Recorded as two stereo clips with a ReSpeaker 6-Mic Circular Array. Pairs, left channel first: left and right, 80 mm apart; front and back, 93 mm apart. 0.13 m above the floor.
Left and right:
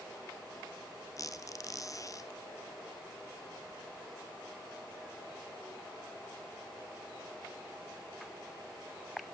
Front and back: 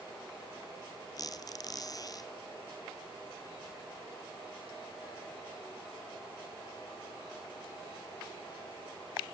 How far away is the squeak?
About 1.0 m.